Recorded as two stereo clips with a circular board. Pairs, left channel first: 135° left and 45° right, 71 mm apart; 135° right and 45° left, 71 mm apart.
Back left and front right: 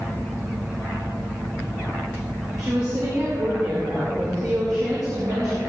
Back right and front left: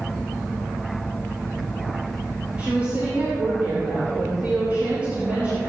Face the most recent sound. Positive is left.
turn(degrees=-20)